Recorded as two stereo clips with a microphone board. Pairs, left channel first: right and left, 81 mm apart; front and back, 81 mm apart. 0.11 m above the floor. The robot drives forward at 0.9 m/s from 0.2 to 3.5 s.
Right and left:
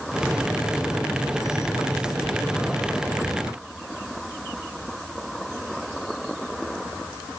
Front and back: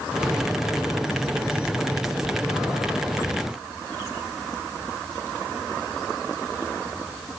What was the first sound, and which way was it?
Only background noise.